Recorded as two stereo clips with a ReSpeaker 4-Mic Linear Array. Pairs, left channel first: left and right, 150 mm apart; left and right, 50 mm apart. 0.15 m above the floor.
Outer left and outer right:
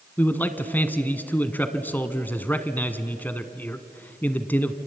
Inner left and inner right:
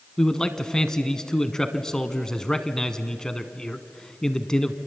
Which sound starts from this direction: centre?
A man speaking, at 0.2 s.